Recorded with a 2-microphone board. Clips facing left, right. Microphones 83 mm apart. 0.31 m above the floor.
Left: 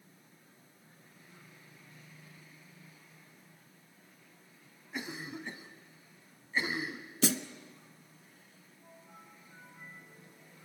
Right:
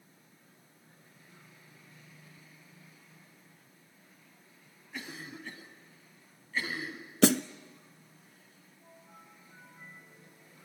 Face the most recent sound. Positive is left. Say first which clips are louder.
# right 8 dB
turn(degrees=-60)  # may be behind; listen again after turning